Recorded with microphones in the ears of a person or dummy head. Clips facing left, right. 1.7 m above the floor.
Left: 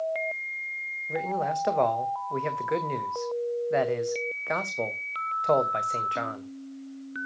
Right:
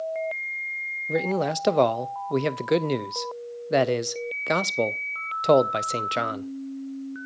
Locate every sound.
1.1 s a man speaking: 40° right (ahead or behind), 0.5 m